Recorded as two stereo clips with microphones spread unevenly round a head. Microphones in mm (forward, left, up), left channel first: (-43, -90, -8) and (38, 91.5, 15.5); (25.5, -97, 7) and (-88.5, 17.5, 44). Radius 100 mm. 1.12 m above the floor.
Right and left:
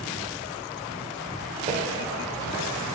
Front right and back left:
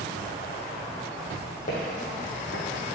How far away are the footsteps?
About 2.5 m.